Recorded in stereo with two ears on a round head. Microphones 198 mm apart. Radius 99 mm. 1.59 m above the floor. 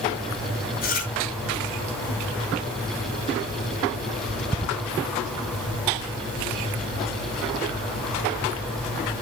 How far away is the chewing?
About 7.5 m.